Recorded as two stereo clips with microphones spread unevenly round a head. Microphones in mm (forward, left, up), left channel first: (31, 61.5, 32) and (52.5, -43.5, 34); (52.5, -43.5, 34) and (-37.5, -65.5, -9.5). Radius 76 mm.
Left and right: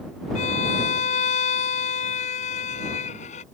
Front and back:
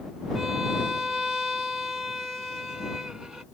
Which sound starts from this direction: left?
A violin, at 0.3 s.